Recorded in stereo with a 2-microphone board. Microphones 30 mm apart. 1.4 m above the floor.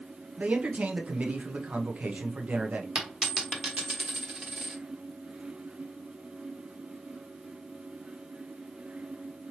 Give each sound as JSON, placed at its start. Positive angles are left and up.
{"t": 0.4, "sound": "a man speaking", "side_deg": -55, "distance_m": 0.8}
{"t": 3.0, "sound": "a dropped coin", "side_deg": -35, "distance_m": 1.2}